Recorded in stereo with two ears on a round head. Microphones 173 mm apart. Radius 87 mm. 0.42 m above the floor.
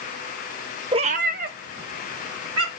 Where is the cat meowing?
25° right (ahead or behind), 0.6 m; by 2.7 s 65° right (ahead or behind), 3 m.